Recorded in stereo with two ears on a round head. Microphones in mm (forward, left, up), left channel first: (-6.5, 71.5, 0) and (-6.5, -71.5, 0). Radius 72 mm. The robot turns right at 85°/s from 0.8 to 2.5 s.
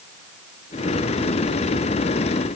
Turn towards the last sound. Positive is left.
No sound to turn to.